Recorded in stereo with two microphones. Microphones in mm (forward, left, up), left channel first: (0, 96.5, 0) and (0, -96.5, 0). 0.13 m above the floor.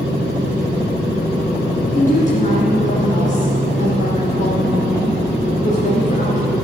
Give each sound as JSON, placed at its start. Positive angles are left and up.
{"t": 1.9, "sound": "a woman speaking", "side_deg": 40, "distance_m": 2.0}